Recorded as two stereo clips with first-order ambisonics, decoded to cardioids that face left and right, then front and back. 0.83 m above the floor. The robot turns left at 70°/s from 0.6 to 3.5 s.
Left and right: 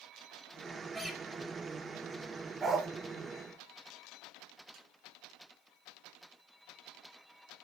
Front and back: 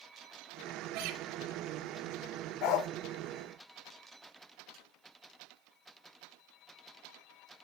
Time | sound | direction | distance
0.9 | a guitar | 165° right | 2.5 m
2.6 | a dog barking | 20° right | 0.9 m
4.7 | a snare drum | 125° right | 7 m